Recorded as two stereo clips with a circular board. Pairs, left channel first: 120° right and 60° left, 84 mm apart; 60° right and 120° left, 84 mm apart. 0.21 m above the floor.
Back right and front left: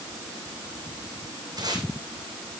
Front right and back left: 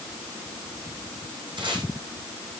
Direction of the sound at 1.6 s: 95° left.